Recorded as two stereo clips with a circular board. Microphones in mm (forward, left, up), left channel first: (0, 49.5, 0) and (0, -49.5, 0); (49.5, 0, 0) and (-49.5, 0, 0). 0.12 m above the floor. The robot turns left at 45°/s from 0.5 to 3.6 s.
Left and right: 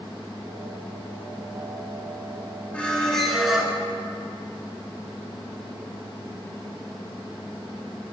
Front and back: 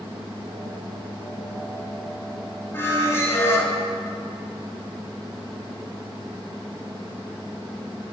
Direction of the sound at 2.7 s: 25° left.